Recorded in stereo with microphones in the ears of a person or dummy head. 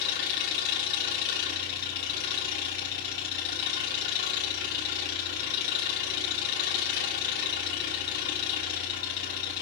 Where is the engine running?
65° left (ahead or behind), 5.5 m.